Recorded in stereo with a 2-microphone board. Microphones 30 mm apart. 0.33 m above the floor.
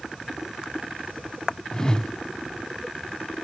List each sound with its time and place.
1.7 s a whoosh: 20° left (ahead or behind), 0.5 m